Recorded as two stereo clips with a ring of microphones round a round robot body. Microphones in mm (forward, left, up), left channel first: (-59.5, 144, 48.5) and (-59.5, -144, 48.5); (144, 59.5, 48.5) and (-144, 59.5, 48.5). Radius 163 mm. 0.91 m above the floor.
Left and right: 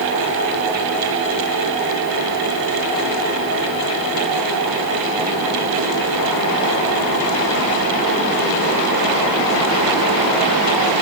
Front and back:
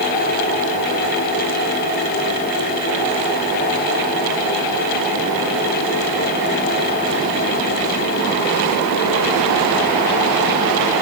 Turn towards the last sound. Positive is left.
No sound to turn to.